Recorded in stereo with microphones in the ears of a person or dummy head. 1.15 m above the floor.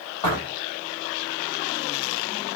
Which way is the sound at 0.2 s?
30° left (ahead or behind).